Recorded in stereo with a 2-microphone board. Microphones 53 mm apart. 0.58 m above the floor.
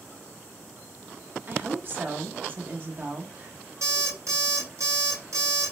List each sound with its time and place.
1.5 s a woman speaking: 40° right (ahead or behind), 1.0 m
3.8 s an alarm clock: 65° right (ahead or behind), 1.2 m